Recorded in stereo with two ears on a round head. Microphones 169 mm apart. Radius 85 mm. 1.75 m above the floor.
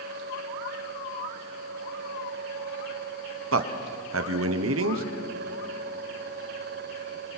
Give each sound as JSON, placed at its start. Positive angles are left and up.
{"t": 3.5, "sound": "a man speaking", "side_deg": -80, "distance_m": 1.2}